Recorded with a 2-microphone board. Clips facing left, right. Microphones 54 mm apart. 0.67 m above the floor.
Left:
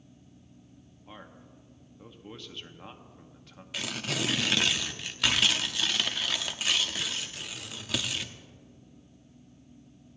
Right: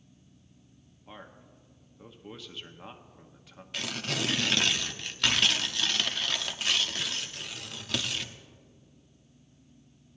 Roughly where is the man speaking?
Centre.